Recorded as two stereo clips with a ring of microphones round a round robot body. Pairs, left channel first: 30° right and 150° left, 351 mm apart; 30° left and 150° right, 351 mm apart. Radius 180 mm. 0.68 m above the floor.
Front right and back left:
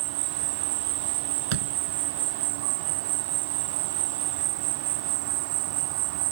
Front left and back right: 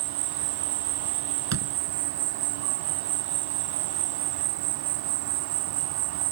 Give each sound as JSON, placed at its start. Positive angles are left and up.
{"t": 0.0, "sound": "an insect", "azimuth_deg": 180}
{"t": 1.5, "sound": "a door slam", "azimuth_deg": 165}